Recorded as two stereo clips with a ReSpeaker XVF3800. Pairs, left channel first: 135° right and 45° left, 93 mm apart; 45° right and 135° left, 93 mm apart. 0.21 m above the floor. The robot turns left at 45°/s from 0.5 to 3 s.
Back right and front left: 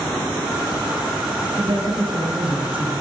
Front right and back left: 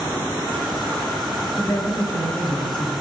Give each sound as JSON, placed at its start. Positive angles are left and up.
{"t": 1.6, "sound": "a woman speaking", "azimuth_deg": 30, "distance_m": 3.5}